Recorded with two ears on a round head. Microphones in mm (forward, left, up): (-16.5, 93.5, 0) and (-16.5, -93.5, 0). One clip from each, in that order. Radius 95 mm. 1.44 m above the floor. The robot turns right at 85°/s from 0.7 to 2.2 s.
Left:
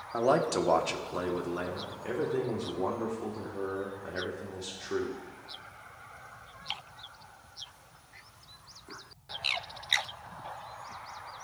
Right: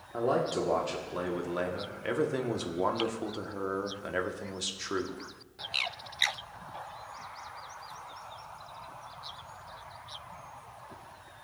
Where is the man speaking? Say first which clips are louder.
Left 2 dB; 135° left, 1.2 m; by 5.2 s 100° right, 1.2 m.